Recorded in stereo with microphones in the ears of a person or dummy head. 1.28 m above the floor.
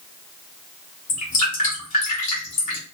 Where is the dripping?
40° left (ahead or behind), 0.9 m.